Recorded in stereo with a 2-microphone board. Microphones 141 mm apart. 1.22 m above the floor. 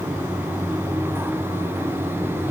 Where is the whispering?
No whispering in this recording.